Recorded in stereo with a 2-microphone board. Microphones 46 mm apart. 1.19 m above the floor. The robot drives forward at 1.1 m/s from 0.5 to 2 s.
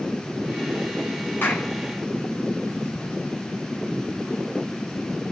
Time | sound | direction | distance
1.4 | a clap | 45° left (ahead or behind) | 9.5 m